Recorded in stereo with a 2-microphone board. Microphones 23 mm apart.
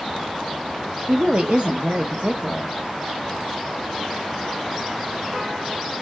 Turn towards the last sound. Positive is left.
turn(degrees=-50)  # may be behind; listen again after turning